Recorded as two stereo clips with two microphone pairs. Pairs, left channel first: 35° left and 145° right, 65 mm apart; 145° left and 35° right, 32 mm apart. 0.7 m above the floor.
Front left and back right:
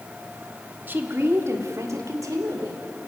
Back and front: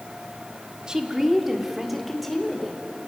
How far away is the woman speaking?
About 1.6 m.